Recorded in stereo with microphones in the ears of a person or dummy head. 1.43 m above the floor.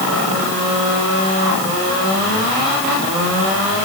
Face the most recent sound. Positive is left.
No sound to turn to.